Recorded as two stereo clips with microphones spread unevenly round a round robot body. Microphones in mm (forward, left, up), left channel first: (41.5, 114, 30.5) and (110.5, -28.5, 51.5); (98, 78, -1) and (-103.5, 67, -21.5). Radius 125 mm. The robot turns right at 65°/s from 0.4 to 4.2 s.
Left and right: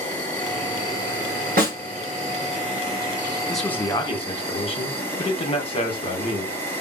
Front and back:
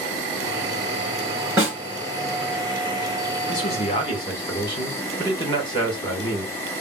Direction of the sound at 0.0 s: 170° left.